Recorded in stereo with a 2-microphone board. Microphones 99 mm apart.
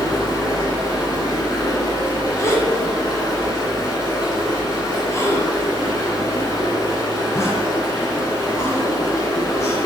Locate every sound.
0.0 s running water: 45° left (ahead or behind), 1.1 m
2.4 s a gasp: 30° left (ahead or behind), 0.6 m